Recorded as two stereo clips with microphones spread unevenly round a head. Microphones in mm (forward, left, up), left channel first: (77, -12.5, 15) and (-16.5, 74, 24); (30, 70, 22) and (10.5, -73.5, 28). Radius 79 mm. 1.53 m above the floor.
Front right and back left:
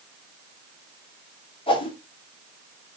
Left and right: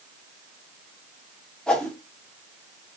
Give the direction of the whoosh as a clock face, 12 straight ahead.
12 o'clock.